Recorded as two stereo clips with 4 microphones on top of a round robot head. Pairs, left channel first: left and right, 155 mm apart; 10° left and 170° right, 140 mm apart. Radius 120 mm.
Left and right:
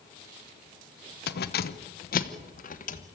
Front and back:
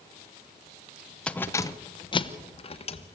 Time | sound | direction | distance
1.3 | keys jangling | 90° left | 0.7 m